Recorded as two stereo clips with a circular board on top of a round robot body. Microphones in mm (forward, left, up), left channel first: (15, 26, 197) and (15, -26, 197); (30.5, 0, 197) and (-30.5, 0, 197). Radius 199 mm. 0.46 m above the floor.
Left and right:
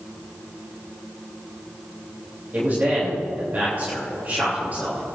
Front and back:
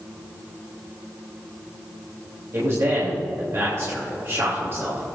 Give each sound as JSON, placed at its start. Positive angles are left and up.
{"t": 2.5, "sound": "a man speaking", "azimuth_deg": -140, "distance_m": 3.0}